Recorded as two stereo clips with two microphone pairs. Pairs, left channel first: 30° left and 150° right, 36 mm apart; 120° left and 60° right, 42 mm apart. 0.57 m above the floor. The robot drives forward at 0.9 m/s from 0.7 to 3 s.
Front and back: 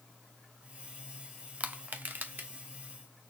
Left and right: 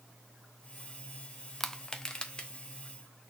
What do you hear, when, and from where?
1.6 s crushing: 160° right, 0.6 m; by 2.5 s 175° right, 1.3 m